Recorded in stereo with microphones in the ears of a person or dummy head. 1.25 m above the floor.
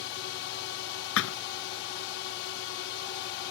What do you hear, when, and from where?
0.0 s a drone: 60° left (ahead or behind)
1.2 s a thud: 75° left (ahead or behind)